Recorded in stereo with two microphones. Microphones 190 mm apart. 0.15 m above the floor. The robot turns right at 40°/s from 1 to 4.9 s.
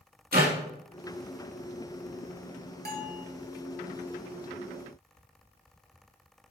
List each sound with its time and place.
0.3 s a clap: 55° right (ahead or behind), 3.5 m
2.9 s a bell: 60° right (ahead or behind), 1.5 m; by 3.3 s 45° right (ahead or behind), 1.5 m